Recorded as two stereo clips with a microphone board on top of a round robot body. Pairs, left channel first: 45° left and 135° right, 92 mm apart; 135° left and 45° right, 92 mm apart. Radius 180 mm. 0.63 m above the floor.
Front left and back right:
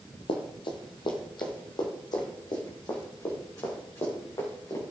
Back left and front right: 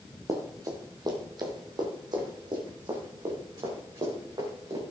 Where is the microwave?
No microwave in this recording.